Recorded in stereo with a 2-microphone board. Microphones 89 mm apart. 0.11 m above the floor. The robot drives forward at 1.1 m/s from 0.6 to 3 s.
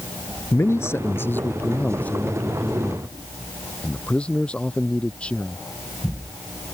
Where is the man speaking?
30° left (ahead or behind); by 5.7 s 10° left (ahead or behind).